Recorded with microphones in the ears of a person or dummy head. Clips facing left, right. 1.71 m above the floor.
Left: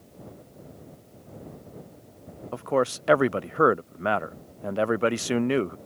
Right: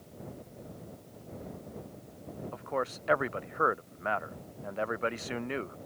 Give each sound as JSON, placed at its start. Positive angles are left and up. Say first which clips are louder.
{"t": 2.5, "sound": "a man speaking", "louder": "left 10 dB", "side_deg": 55}